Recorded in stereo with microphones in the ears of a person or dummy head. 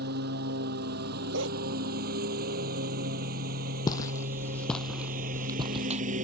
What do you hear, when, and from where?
0.0 s a lawn mower: 55° right (ahead or behind); by 6.2 s 45° right (ahead or behind)
1.3 s a dog barking: 75° right (ahead or behind)
3.9 s footsteps: 20° left (ahead or behind); by 6.0 s 35° right (ahead or behind)